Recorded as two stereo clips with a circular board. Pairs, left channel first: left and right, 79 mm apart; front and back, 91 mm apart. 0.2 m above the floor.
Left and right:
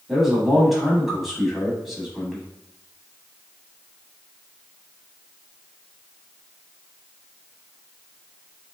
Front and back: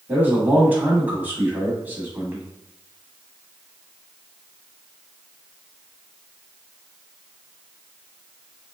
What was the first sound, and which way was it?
A man speaking, 170° right.